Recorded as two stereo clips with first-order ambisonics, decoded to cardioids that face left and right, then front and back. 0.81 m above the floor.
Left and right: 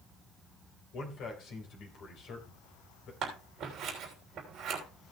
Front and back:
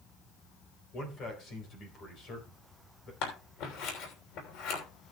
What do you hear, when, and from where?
0.9 s a man speaking: 50° left, 3 m
3.2 s scissors: 30° right, 3 m